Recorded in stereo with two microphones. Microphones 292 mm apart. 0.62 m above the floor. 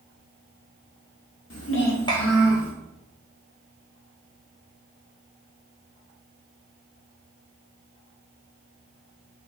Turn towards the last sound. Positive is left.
turn(degrees=-10)  # may be behind; listen again after turning